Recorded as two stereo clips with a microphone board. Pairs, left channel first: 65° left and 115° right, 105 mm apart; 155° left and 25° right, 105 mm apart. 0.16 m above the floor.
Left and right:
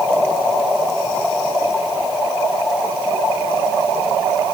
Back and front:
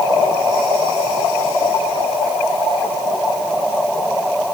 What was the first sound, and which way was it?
Only background noise.